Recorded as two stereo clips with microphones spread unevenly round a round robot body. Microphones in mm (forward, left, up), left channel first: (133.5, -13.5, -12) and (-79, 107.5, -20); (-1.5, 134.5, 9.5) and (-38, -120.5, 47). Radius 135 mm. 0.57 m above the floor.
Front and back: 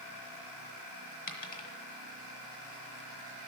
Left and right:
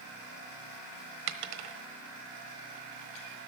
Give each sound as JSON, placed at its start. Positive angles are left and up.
{"t": 1.3, "sound": "a dropped coin", "azimuth_deg": -95, "distance_m": 1.2}